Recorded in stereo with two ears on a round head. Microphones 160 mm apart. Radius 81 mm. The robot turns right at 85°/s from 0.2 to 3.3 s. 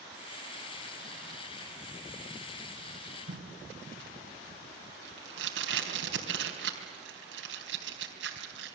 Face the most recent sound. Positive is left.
turn(degrees=-80)